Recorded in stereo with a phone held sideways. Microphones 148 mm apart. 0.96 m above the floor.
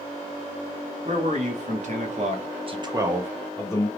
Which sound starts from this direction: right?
A man speaking, at 1.1 s.